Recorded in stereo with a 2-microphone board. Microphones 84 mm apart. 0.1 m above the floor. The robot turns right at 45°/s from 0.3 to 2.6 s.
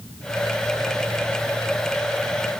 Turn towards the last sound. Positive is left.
No sound to turn to.